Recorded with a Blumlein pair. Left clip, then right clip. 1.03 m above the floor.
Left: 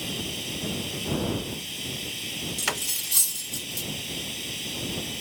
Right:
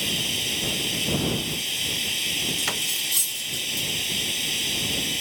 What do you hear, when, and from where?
0.0 s running water: 20° right
2.6 s cutlery clinking: 10° left